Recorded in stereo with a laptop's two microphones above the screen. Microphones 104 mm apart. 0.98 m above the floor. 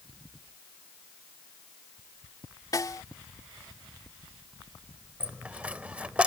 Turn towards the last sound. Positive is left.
turn(degrees=-15)  # may be behind; listen again after turning